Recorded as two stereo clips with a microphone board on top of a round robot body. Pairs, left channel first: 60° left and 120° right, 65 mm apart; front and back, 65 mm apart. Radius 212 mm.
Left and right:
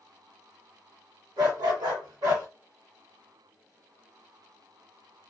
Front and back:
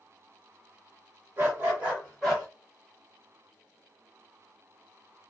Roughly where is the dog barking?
Behind right.